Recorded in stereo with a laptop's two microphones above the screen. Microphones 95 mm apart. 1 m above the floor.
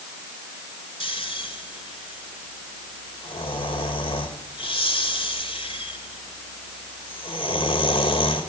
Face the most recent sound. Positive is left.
turn(degrees=65)  # may be behind; listen again after turning